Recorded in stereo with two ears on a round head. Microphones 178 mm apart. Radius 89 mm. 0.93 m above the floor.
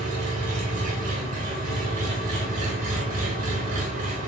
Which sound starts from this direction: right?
An engine running, at 0.0 s.